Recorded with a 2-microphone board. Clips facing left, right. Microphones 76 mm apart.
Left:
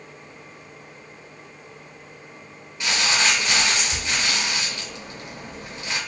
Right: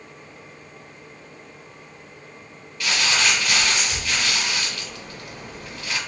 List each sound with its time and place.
2.8 s crumpling: 20° left (ahead or behind), 2 m